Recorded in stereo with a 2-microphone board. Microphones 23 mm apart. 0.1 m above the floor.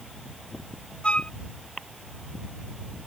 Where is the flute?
60° left (ahead or behind).